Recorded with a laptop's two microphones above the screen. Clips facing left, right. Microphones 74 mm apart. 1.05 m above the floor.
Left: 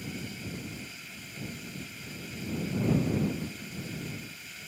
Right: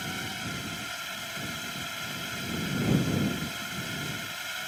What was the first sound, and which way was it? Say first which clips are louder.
A drone: right 4 dB; 75° right (ahead or behind).